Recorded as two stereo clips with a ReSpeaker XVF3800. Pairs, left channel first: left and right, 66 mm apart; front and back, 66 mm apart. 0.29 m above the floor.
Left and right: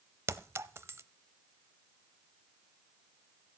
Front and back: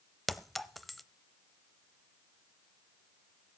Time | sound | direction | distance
0.3 | a clink | 85° right | 0.7 m